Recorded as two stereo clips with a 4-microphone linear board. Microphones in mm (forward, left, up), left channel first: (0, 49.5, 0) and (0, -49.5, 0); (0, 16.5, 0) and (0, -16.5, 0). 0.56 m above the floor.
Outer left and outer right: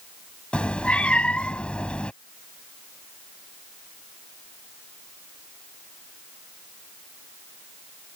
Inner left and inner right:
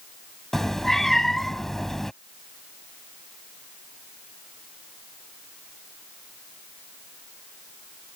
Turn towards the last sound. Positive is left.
turn(degrees=10)  # may be behind; listen again after turning